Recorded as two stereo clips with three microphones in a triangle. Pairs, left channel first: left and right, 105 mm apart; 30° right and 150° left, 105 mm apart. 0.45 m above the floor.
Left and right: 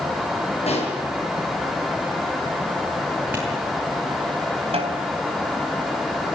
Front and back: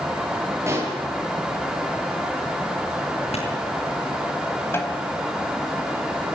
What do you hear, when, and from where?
0.7 s a pop: 85° left, 8 m
3.3 s a clap: 15° right, 9 m
4.7 s a snare drum: 95° right, 3.5 m